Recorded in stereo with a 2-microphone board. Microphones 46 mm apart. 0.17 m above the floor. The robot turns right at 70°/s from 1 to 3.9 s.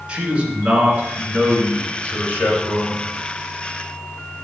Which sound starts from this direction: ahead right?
A man speaking, at 0.1 s.